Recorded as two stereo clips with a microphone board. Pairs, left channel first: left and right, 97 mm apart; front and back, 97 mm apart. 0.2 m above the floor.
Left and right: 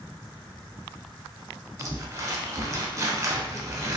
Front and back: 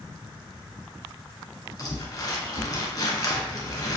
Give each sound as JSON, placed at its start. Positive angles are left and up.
{"t": 1.8, "sound": "crumpling", "azimuth_deg": -40, "distance_m": 0.7}